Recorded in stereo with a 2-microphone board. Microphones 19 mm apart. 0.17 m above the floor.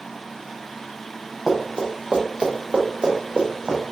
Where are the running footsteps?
25° right (ahead or behind), 1.3 m; by 3.8 s 70° right (ahead or behind), 1.8 m.